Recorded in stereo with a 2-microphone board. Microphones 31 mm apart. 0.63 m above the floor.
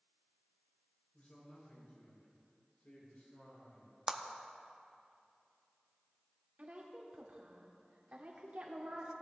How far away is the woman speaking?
About 1.8 m.